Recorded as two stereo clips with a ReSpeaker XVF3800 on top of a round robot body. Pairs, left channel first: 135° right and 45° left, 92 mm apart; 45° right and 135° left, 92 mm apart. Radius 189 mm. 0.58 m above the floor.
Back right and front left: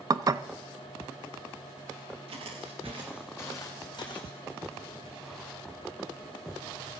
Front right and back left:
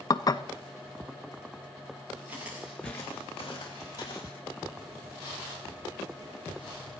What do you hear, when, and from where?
0.1 s dishes clattering: straight ahead, 0.6 m
2.3 s footsteps: 65° left, 1.1 m; by 4.4 s 95° right, 1.7 m